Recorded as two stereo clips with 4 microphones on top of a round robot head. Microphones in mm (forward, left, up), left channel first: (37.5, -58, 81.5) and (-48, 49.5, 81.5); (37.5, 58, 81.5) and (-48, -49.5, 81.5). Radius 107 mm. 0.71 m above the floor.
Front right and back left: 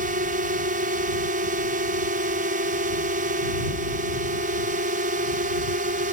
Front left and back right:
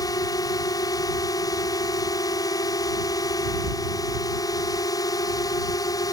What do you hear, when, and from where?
0.0 s a drone: 115° left